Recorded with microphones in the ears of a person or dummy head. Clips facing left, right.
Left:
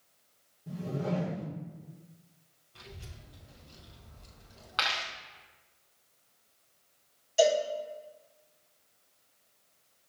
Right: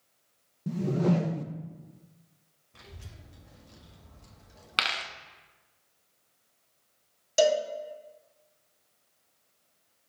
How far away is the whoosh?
About 0.6 m.